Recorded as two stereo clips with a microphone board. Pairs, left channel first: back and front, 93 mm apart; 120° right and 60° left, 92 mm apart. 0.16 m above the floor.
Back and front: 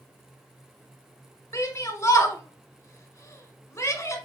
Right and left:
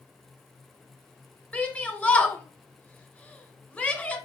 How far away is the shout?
About 1.7 m.